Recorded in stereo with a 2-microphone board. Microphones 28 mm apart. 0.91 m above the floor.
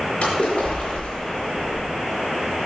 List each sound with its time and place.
0.2 s a splash: 65° left (ahead or behind), 4.5 m